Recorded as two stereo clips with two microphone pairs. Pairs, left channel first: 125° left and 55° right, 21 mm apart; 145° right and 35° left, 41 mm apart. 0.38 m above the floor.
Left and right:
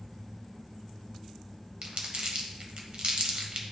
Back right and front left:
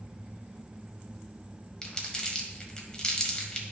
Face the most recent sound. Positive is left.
turn(degrees=-75)